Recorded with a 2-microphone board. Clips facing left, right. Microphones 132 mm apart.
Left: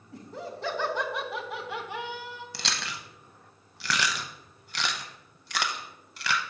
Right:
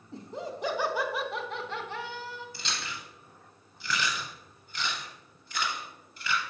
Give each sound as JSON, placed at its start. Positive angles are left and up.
{"t": 0.1, "sound": "laughter", "side_deg": -25, "distance_m": 0.8}
{"t": 2.5, "sound": "chewing", "side_deg": 75, "distance_m": 0.6}